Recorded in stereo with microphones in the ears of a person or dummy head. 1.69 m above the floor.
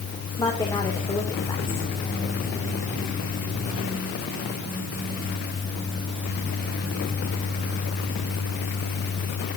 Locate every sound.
0.4 s a woman speaking: 20° left (ahead or behind), 2 m